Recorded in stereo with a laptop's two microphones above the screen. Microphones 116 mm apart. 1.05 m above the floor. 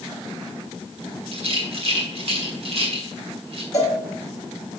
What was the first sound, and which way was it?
A rattle, 60° right (ahead or behind).